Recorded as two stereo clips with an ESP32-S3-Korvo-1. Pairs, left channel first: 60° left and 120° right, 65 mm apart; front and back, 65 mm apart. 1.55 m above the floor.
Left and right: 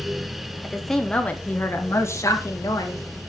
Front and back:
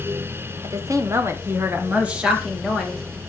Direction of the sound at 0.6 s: 155° left.